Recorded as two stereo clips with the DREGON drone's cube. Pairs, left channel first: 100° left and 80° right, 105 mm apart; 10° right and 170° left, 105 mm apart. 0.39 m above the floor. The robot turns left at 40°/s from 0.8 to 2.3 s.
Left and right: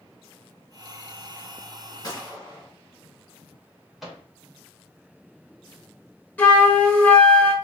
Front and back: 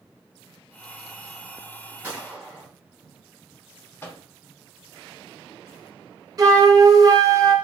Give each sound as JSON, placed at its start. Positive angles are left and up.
{"t": 2.0, "sound": "a gunshot", "azimuth_deg": 105, "distance_m": 1.1}
{"t": 4.0, "sound": "a microwave", "azimuth_deg": 5, "distance_m": 0.8}
{"t": 6.4, "sound": "a flute", "azimuth_deg": 160, "distance_m": 0.5}